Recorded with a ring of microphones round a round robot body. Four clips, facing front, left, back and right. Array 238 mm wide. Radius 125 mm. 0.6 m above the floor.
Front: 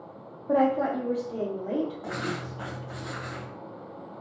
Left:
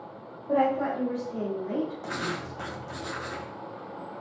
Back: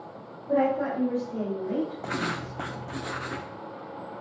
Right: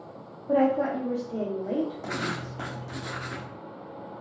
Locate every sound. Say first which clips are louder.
0.5 s a woman speaking: right 2 dB, front 1 dB; 25° right, 0.9 m; by 2.9 s 45° right, 3.5 m
2.0 s writing: right 1 dB, back 2 dB; 170° right, 0.6 m